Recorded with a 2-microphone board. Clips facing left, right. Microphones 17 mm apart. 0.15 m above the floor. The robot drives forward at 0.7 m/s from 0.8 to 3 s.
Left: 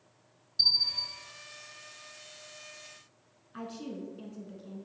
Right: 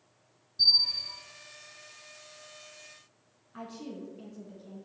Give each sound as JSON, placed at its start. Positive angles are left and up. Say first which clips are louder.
{"t": 0.6, "sound": "a bell", "louder": "right 2 dB", "side_deg": 35, "distance_m": 1.3}
{"t": 3.5, "sound": "a woman speaking", "louder": "left 1 dB", "side_deg": 5, "distance_m": 1.1}